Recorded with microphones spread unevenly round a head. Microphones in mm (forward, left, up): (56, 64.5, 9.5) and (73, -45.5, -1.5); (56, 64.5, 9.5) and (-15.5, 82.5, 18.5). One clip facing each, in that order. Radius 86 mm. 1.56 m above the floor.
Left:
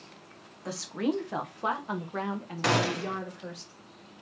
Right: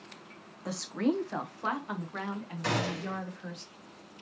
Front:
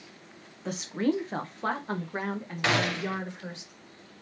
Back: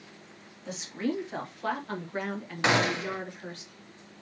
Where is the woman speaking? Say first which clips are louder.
Even, front 4 dB; 10° left, 0.8 m; by 3.6 s 60° left, 2 m.